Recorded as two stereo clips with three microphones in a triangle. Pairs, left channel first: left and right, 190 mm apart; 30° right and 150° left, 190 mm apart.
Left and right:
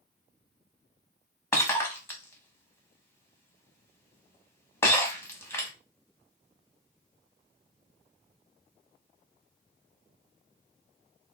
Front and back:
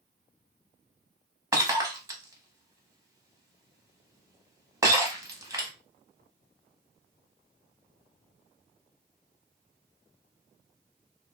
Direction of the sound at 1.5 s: 135° left.